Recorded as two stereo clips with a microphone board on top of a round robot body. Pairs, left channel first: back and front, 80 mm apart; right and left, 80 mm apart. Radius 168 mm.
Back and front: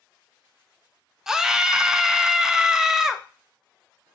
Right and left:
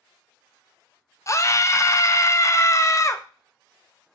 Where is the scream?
80° right, 0.6 m.